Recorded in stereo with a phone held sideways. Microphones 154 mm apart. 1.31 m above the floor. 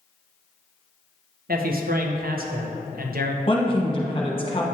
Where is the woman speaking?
35° left (ahead or behind), 1.2 m.